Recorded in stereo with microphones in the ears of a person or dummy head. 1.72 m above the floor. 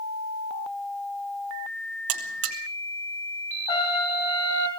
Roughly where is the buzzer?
Right.